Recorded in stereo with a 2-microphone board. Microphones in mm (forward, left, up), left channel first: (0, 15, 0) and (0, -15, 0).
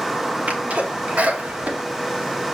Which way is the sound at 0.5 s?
65° right (ahead or behind).